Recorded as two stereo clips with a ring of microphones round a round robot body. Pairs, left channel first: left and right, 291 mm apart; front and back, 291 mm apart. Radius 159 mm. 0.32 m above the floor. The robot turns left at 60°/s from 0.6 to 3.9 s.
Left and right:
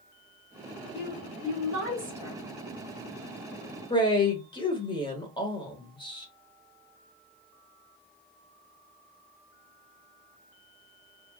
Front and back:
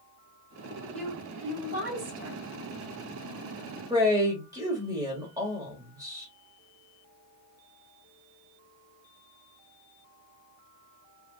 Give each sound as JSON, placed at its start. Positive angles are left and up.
{"t": 0.9, "sound": "a woman speaking", "azimuth_deg": -85, "distance_m": 2.5}
{"t": 3.9, "sound": "a man speaking", "azimuth_deg": 130, "distance_m": 1.1}